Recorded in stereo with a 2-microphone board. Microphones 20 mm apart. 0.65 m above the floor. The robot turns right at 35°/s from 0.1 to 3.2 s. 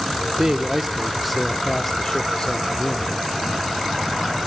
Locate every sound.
0.4 s a man speaking: 40° right, 1.3 m; by 3.1 s 60° left, 1.3 m